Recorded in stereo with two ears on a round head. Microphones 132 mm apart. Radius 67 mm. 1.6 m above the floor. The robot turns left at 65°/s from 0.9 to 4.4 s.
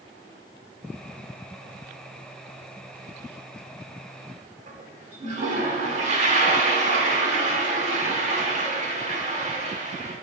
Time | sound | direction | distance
4.7 | a toilet flushing | 55° right (ahead or behind) | 4 m